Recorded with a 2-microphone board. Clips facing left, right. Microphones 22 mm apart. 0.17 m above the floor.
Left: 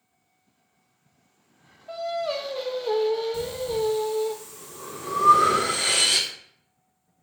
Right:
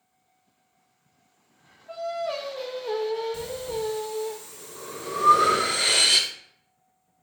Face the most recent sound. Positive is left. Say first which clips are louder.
# left 4 dB
turn(degrees=-10)  # may be behind; listen again after turning